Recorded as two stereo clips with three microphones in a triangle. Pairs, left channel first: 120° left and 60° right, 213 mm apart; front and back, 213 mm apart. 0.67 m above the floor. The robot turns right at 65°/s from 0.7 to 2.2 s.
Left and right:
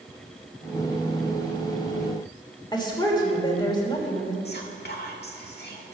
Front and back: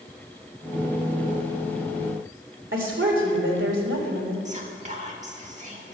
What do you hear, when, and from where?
2.7 s a woman speaking: 175° right, 2.5 m
4.5 s whispering: 135° left, 1.8 m